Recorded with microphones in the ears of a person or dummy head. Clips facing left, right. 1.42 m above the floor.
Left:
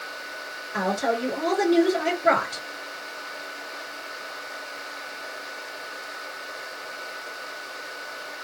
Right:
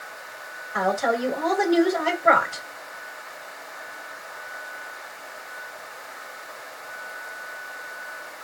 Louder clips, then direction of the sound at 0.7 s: Right 2 dB; 25° left (ahead or behind).